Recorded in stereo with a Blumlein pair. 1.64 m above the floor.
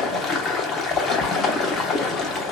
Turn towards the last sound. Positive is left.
turn(degrees=20)